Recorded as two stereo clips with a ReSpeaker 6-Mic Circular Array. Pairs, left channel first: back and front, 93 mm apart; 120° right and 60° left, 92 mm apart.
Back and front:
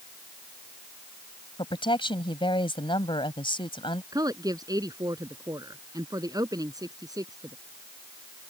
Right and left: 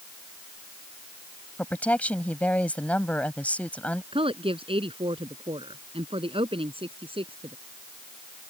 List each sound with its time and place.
1.6 s a woman speaking: 165° left
4.1 s a woman speaking: 45° left